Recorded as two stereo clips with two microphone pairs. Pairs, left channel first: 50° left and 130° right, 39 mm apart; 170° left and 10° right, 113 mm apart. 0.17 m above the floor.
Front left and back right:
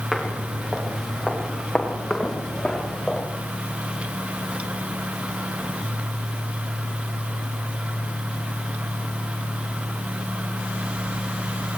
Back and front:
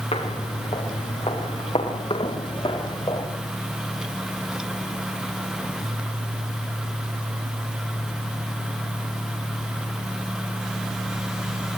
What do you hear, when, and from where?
0.1 s footsteps: 145° left, 7 m; by 3.3 s 125° left, 8 m